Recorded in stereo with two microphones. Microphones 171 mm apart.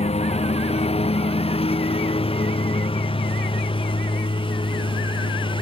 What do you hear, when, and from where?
0.0 s a lawn mower: 35° left (ahead or behind); by 5.6 s 25° left (ahead or behind)